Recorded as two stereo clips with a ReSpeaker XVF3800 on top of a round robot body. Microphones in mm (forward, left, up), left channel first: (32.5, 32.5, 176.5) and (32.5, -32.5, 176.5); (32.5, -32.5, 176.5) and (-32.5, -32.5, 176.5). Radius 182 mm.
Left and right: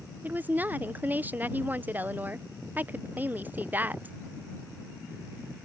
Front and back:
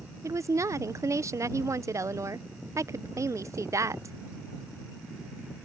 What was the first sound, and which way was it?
A woman speaking, 150° right.